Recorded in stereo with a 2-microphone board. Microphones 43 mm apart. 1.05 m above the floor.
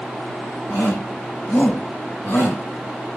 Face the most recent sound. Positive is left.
turn(degrees=50)  # may be behind; listen again after turning